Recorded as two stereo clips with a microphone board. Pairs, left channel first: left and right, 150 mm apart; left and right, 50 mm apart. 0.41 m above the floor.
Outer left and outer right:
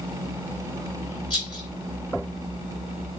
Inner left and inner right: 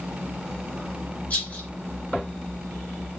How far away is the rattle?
About 1.7 m.